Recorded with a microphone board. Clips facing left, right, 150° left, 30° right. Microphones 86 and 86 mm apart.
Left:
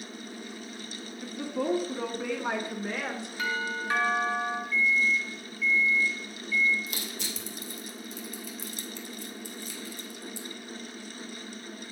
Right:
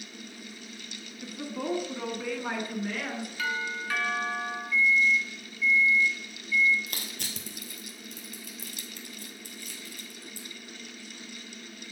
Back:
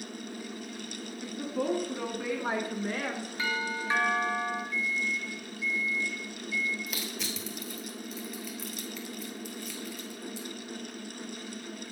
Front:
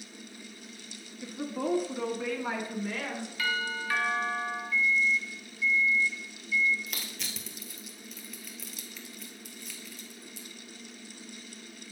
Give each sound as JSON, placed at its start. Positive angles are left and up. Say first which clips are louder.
{"t": 1.2, "sound": "a woman speaking", "louder": "left 3 dB, back 1 dB", "azimuth_deg": -15, "distance_m": 1.1}
{"t": 3.4, "sound": "a doorbell", "louder": "left 2 dB, front 1 dB", "azimuth_deg": 120, "distance_m": 1.6}
{"t": 4.7, "sound": "a microwave", "louder": "right 3 dB, front 5 dB", "azimuth_deg": 180, "distance_m": 1.5}
{"t": 6.9, "sound": "crushing", "louder": "left 3 dB, back 5 dB", "azimuth_deg": -125, "distance_m": 1.2}